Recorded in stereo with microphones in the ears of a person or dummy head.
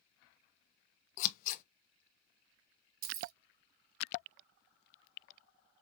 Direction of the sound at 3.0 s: 50° right (ahead or behind).